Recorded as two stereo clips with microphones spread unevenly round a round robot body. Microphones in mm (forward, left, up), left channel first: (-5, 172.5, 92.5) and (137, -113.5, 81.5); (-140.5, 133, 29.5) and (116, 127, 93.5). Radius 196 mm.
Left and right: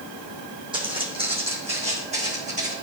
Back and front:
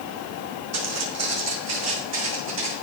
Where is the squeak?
I don't hear a squeak.